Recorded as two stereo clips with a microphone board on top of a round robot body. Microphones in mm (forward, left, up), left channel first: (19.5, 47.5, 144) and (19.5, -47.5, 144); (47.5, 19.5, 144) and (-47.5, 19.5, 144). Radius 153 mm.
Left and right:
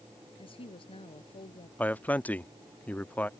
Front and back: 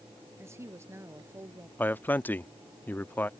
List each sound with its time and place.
0.4 s a woman speaking: 115° left
1.8 s a man speaking: 40° left